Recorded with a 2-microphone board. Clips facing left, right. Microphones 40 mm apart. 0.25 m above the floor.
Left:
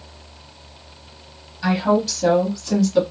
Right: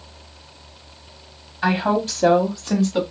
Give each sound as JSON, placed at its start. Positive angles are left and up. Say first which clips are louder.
{"t": 1.6, "sound": "a woman speaking", "louder": "left 1 dB", "side_deg": -40, "distance_m": 1.2}